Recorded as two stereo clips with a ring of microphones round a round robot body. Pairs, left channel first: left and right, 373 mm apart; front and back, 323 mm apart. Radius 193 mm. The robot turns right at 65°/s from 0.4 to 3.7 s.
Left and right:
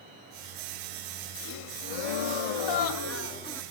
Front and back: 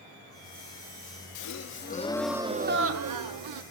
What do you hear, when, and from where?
1.4 s a gasp: 30° left, 0.8 m; by 3.6 s straight behind, 0.8 m